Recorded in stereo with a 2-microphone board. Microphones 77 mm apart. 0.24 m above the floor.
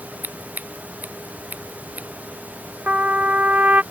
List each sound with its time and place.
0.2 s scissors: 20° right (ahead or behind)
2.9 s a trumpet: 20° right (ahead or behind)